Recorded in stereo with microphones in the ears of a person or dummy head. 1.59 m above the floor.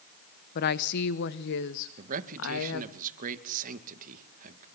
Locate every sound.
0.6 s a woman speaking: 50° left (ahead or behind), 1.1 m; by 3.0 s 70° left (ahead or behind), 2 m
2.0 s a man speaking: 50° right (ahead or behind), 2 m